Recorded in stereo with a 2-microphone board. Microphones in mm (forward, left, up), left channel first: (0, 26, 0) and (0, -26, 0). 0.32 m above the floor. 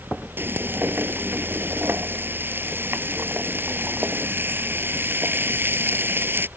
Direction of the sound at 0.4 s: 45° right (ahead or behind).